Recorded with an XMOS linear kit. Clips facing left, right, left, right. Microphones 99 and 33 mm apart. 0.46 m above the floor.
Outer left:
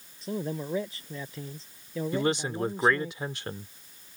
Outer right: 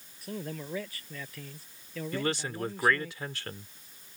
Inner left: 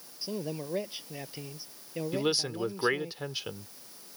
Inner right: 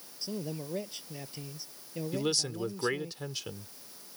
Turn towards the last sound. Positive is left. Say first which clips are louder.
# outer left 4 dB, inner left 2 dB
turn(degrees=20)  # may be behind; listen again after turning